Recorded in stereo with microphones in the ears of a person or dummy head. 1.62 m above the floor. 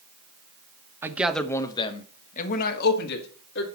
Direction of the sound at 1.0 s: 15° right (ahead or behind).